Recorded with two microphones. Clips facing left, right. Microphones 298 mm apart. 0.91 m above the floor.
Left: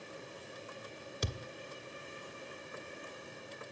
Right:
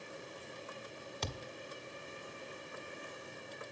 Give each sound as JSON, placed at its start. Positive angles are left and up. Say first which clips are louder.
{"t": 1.2, "sound": "a thud", "louder": "left 3 dB", "side_deg": 15, "distance_m": 1.2}